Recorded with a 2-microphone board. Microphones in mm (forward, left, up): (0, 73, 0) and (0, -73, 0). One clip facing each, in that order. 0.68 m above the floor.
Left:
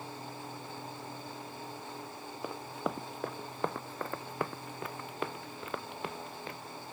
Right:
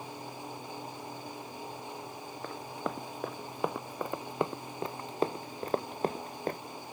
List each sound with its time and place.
2.4 s running footsteps: 10° left (ahead or behind); by 6.6 s 50° right (ahead or behind)